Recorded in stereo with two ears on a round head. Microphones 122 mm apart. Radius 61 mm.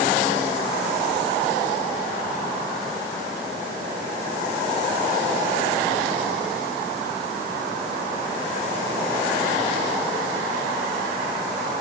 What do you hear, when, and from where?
Only background noise.